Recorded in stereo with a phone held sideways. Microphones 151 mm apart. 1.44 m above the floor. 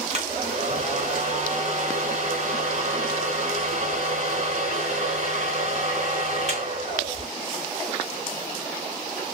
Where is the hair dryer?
50° right (ahead or behind), 1.7 m.